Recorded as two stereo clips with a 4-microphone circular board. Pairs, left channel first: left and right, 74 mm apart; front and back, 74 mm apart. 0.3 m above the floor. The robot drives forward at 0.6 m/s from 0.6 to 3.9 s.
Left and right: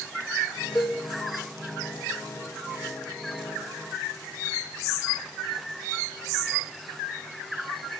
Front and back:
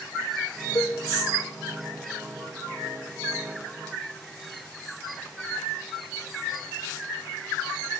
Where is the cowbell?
35° left, 2.5 m; by 1.0 s 40° left, 2.5 m.